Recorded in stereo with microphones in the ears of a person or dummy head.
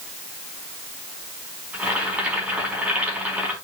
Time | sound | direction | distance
1.7 | boiling | 5° right (ahead or behind) | 4.5 m